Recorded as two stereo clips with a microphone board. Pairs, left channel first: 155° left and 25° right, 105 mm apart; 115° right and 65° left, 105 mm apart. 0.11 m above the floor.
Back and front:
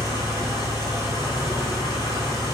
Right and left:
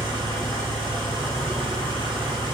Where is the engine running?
35° left, 1.1 m.